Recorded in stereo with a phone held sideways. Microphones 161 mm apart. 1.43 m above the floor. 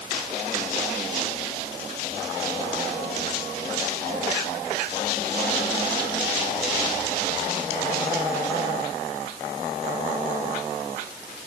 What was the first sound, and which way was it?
Only background noise.